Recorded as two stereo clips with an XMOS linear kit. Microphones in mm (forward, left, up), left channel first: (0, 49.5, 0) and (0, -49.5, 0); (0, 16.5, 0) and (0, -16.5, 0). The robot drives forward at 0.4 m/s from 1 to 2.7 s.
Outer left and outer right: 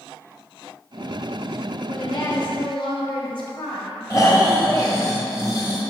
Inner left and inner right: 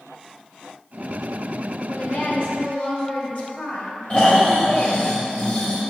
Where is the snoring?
40° left (ahead or behind), 1.4 m.